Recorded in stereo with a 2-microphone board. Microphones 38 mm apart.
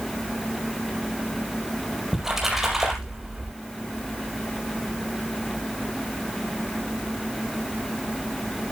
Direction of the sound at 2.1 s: 10° right (ahead or behind).